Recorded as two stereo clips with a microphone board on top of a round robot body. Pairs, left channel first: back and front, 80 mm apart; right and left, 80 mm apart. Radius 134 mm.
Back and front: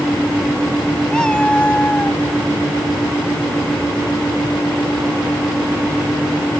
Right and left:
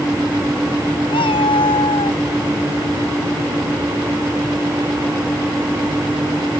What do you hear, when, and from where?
1.1 s a cat meowing: 100° right; by 2.2 s 110° right